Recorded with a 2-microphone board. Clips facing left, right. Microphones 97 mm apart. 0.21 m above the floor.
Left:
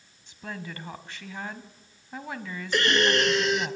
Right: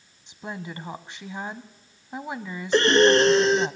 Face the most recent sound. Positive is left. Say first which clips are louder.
# right 7 dB
turn(degrees=-35)  # may be behind; listen again after turning